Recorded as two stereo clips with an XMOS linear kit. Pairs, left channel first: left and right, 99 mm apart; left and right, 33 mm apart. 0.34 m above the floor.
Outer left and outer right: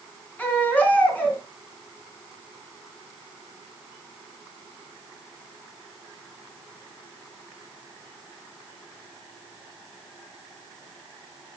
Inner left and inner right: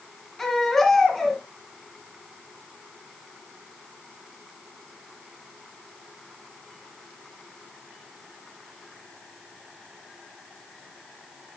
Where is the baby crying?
15° left (ahead or behind), 2.5 m.